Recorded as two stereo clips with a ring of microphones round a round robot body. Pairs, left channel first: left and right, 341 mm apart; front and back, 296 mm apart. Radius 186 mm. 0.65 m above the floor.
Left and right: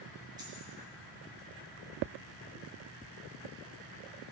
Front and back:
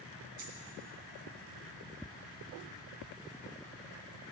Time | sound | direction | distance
0.4 | a dropped coin | 170° right | 3.5 m